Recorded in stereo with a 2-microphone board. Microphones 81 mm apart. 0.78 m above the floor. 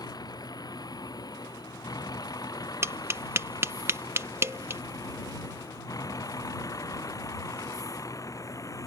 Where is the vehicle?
55° left (ahead or behind); by 8.9 s 45° left (ahead or behind).